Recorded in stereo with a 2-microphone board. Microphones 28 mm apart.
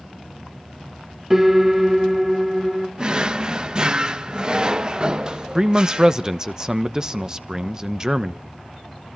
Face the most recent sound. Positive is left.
turn(degrees=-30)  # may be behind; listen again after turning